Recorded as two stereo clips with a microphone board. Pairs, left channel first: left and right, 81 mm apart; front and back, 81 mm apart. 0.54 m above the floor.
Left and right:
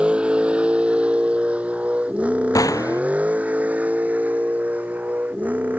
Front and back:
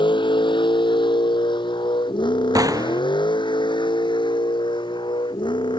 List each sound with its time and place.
0.0 s a vehicle: 10° right; by 5.8 s 20° right
2.5 s a gunshot: 135° left